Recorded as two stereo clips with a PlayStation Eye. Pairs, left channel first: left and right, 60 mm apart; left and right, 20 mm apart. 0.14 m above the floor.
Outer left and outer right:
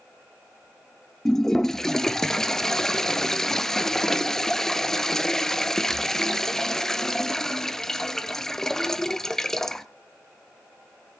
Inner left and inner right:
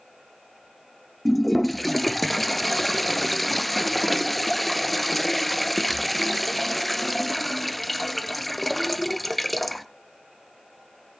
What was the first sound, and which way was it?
A toilet flushing, 5° left (ahead or behind).